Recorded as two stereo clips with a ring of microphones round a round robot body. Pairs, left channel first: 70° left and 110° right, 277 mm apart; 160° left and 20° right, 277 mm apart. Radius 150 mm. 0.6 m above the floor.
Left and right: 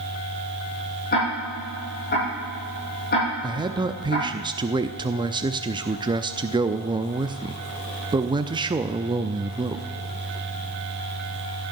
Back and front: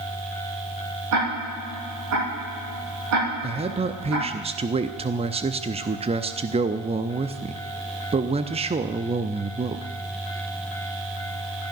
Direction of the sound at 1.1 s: 10° left.